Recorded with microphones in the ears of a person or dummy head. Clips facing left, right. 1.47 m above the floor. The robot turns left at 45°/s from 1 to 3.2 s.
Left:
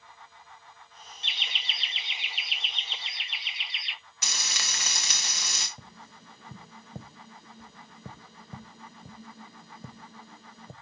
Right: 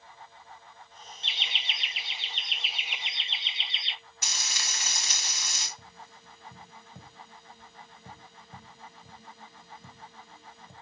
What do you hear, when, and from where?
1.2 s laughter: 55° left, 0.7 m; by 4.0 s 30° right, 0.7 m
4.2 s frying: 65° left (ahead or behind), 1.5 m
5.8 s tapping: 35° left (ahead or behind), 0.7 m